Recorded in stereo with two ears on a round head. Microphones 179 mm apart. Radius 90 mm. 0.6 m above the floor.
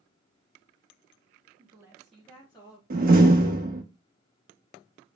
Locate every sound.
1.6 s a woman speaking: 25° right (ahead or behind), 1.0 m; by 2.8 s 20° left (ahead or behind), 1.8 m
2.9 s a door slam: 45° right (ahead or behind), 0.8 m